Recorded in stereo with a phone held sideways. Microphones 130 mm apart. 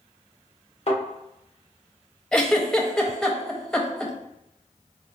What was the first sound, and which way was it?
A thud, 50° left (ahead or behind).